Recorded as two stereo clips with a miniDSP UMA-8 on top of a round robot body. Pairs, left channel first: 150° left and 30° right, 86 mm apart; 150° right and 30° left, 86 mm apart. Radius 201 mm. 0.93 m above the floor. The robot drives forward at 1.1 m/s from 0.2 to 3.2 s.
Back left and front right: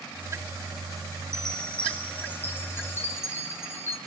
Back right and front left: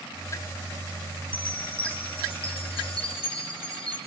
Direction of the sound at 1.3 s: 125° right.